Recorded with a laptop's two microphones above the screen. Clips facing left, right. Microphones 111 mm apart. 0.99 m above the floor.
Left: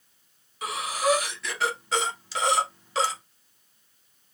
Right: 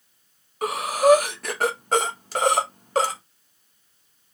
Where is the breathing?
45° right (ahead or behind), 0.8 m.